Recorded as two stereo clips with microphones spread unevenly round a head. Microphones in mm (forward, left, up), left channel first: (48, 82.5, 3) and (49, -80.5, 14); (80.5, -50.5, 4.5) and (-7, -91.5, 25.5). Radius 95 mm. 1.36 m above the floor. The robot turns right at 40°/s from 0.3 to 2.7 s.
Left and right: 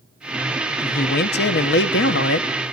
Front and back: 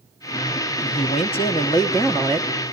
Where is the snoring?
I don't hear snoring.